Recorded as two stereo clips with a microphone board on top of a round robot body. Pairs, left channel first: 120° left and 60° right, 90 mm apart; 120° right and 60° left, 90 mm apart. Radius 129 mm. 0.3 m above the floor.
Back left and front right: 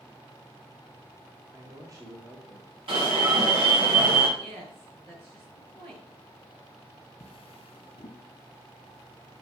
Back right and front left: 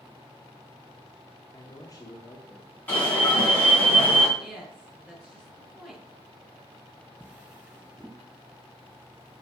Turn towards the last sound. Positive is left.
turn(degrees=135)